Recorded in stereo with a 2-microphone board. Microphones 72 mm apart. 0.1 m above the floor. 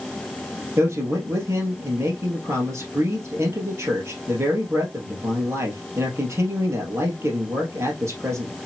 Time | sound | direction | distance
0.8 | a man speaking | 40° right (ahead or behind) | 2 m